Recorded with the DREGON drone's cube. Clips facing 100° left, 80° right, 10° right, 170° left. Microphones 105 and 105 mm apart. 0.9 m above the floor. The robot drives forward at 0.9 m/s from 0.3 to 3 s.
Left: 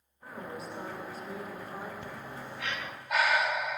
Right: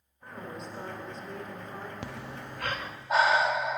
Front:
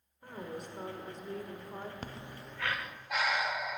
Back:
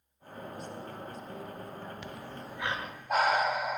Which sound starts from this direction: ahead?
A woman speaking, at 0.2 s.